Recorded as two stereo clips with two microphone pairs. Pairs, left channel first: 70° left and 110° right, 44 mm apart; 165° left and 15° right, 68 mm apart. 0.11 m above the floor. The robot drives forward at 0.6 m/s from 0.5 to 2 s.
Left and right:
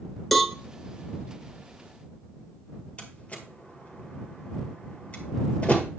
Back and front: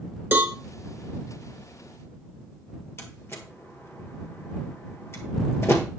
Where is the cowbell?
20° right, 0.7 m.